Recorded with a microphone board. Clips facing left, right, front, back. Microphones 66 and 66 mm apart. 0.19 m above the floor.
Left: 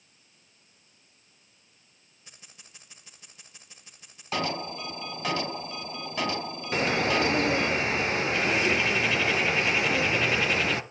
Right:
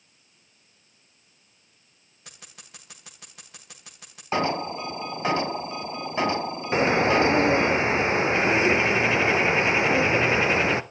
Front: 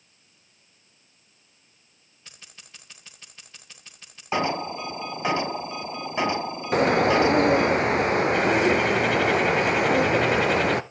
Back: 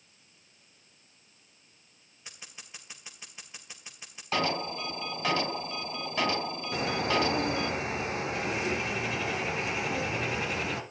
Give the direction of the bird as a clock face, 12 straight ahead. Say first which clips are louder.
Right 5 dB, front 10 dB; 1 o'clock.